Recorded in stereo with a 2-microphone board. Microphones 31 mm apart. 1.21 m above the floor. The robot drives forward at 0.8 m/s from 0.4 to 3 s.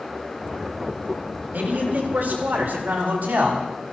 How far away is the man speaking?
About 4 m.